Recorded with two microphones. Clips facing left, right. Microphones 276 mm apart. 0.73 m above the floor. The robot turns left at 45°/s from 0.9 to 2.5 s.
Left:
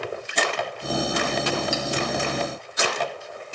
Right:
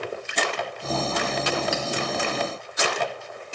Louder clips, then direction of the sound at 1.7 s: Left 1 dB; 60° right (ahead or behind).